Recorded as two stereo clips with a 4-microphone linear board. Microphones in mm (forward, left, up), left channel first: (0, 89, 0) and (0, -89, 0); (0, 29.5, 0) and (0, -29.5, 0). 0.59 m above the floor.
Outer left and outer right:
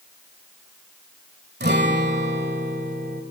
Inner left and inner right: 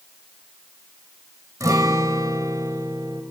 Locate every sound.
1.6 s a guitar: 70° right (ahead or behind), 1.6 m